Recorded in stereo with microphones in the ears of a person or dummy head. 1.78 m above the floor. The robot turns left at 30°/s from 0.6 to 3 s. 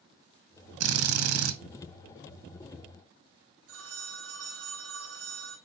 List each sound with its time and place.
0.8 s a drill: 80° right, 1.4 m; by 1.6 s 75° right (ahead or behind), 1.4 m
3.7 s a phone ringing: 80° right, 3.5 m